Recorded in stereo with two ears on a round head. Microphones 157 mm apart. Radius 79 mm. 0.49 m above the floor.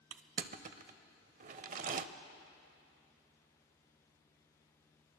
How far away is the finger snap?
No finger snap in this recording.